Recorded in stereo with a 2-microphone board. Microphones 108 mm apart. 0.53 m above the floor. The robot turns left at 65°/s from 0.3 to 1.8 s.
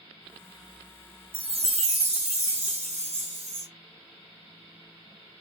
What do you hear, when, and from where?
1.3 s a chime: 50° right (ahead or behind), 0.6 m; by 3.7 s 75° right (ahead or behind), 0.6 m